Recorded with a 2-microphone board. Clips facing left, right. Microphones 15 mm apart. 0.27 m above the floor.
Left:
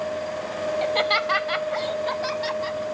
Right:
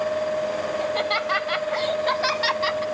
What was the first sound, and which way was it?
Laughter, 30° left (ahead or behind).